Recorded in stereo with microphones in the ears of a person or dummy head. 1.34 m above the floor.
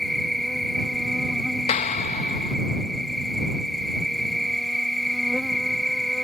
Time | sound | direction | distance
0.0 | an insect | 5° right (ahead or behind) | ?
1.7 | a clap | 40° left (ahead or behind) | ?